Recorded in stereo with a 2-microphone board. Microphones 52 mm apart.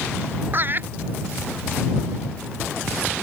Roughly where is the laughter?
Right.